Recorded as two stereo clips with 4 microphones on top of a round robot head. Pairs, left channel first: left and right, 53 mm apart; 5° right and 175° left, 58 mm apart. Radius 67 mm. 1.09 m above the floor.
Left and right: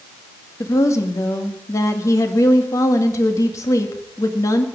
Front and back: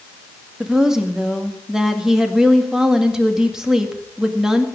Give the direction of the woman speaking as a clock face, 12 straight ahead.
9 o'clock.